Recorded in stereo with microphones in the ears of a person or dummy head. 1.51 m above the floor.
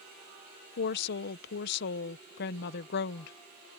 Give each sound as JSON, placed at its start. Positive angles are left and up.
{"t": 0.8, "sound": "a woman speaking", "side_deg": 60}